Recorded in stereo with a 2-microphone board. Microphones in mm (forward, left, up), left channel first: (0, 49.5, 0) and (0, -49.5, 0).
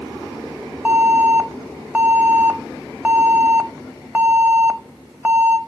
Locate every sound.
0.8 s an alarm: 15° right (ahead or behind), 1.3 m